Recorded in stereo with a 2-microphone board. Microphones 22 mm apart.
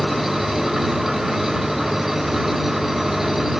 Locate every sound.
0.0 s an engine running: 15° right (ahead or behind)